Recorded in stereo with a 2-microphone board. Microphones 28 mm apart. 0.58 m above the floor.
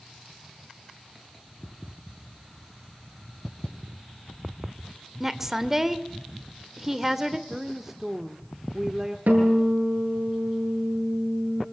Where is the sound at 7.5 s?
15° right (ahead or behind), 1.2 m.